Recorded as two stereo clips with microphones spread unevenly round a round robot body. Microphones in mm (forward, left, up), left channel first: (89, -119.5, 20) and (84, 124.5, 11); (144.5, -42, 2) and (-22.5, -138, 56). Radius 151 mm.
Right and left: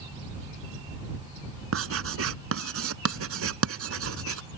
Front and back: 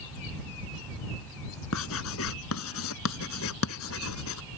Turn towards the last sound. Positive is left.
turn(degrees=65)